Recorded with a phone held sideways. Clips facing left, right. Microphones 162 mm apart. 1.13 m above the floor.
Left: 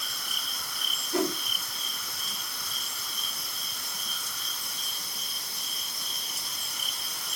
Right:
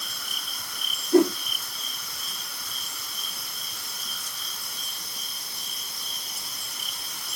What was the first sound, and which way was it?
A whoosh, 45° right (ahead or behind).